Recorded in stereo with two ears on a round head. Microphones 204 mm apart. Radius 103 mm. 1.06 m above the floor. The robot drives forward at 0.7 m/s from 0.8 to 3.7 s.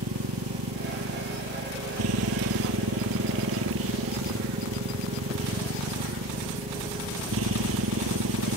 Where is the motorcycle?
75° right (ahead or behind); by 8.6 s 65° right (ahead or behind).